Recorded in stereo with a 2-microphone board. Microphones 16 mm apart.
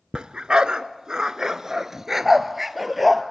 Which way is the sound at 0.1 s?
75° right (ahead or behind).